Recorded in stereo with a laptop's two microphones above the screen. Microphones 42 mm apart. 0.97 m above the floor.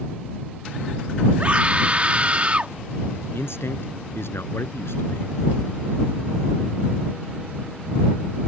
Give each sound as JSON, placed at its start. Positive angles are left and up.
{"t": 1.4, "sound": "a scream", "side_deg": -30}
{"t": 3.3, "sound": "a man speaking", "side_deg": 70}